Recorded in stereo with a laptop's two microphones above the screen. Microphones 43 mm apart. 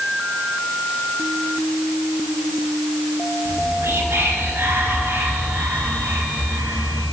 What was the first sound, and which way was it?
Whispering, 85° right.